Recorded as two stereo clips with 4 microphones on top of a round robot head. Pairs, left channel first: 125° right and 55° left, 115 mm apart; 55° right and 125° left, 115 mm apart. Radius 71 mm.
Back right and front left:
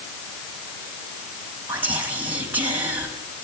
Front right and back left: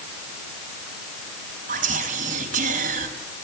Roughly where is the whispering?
Behind left.